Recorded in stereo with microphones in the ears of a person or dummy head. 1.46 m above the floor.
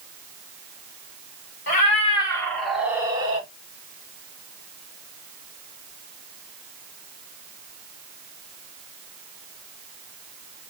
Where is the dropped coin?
I don't hear a dropped coin.